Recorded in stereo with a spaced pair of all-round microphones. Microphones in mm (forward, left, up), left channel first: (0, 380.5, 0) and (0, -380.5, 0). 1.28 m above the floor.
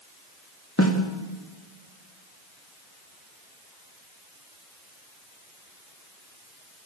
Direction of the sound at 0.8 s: 20° left (ahead or behind).